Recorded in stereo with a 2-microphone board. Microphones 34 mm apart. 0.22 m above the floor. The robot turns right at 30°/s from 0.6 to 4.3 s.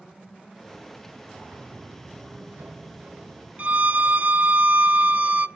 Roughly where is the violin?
Right.